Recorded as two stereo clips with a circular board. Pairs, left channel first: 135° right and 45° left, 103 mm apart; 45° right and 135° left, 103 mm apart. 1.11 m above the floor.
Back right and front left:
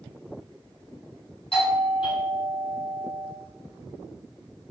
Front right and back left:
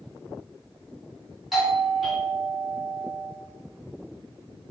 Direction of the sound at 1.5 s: 135° right.